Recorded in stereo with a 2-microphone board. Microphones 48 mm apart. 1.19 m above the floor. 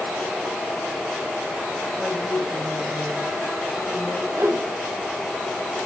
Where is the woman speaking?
35° right (ahead or behind), 6.5 m.